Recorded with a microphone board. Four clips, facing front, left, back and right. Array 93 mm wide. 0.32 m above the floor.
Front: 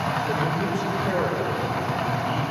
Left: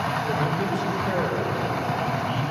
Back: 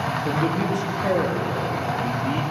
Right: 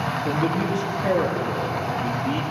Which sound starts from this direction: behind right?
A man speaking, at 0.2 s.